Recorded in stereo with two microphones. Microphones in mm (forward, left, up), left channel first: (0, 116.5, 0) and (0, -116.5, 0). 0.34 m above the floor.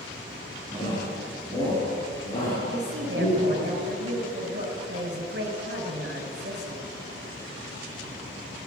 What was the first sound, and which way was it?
A shout, 15° left (ahead or behind).